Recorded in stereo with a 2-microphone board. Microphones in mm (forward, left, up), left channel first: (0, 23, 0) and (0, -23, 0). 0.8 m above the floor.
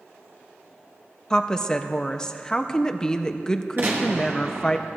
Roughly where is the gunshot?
Right.